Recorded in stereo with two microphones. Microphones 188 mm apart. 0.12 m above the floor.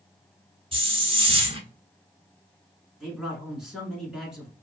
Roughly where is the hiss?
Right.